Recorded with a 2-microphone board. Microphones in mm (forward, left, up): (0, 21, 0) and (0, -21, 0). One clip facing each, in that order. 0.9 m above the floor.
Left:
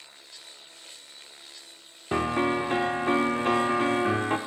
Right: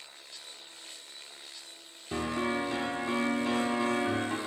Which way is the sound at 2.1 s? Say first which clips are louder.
Left 6 dB; 50° left (ahead or behind).